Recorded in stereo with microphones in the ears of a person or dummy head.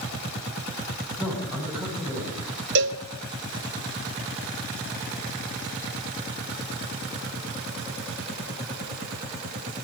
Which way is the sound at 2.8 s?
65° right (ahead or behind).